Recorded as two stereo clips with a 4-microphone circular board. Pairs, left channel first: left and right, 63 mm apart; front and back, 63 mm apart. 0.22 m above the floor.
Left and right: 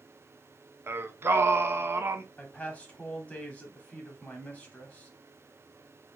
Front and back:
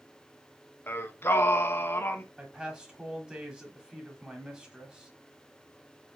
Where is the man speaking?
125° left, 1.1 m.